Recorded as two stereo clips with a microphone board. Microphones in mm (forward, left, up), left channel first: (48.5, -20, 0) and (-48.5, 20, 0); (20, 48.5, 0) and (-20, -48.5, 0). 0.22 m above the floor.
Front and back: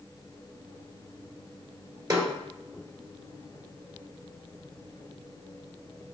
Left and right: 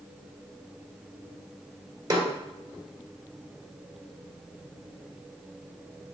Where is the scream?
I don't hear a scream.